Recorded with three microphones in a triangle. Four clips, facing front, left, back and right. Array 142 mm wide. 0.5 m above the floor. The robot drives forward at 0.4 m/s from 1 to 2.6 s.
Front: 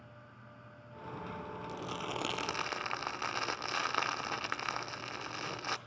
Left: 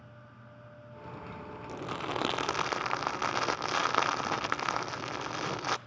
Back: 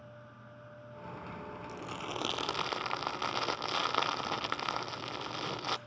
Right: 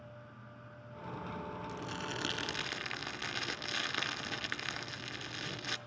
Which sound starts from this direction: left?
Crumpling, at 1.7 s.